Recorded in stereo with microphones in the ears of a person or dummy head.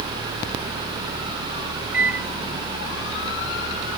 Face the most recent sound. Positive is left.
turn(degrees=-5)  # may be behind; listen again after turning